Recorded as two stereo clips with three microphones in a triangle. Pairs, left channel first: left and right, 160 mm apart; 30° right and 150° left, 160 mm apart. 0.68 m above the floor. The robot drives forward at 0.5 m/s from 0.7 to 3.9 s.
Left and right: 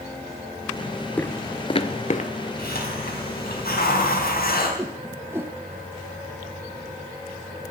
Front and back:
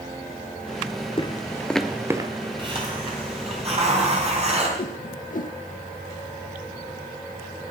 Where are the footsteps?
10° left, 0.9 m; by 2.3 s 95° left, 0.9 m.